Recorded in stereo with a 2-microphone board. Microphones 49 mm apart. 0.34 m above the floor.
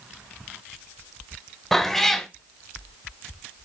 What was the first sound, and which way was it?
A cat meowing, 5° left (ahead or behind).